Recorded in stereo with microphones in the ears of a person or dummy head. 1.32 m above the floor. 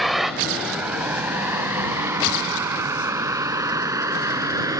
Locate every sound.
0.0 s a vehicle: centre (ahead or behind); by 4.8 s 20° right (ahead or behind)